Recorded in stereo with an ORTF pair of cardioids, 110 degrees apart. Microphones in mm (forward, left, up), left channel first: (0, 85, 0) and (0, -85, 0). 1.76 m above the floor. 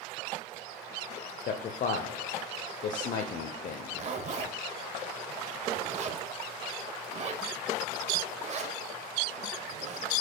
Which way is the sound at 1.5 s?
50° left.